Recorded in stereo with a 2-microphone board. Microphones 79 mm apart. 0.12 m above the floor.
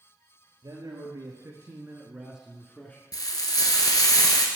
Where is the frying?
55° left (ahead or behind), 1.1 m.